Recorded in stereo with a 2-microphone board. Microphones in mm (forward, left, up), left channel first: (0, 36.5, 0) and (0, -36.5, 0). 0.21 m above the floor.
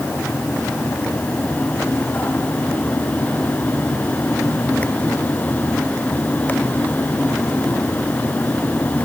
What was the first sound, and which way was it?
Only background noise.